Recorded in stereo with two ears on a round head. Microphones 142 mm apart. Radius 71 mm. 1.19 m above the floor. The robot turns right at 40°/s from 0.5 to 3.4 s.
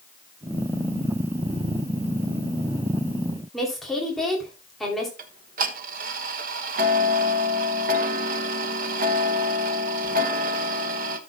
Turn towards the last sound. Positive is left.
turn(degrees=-55)  # may be behind; listen again after turning